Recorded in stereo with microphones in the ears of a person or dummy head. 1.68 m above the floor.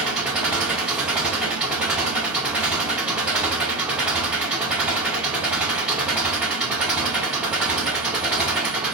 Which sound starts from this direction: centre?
An engine running, at 0.0 s.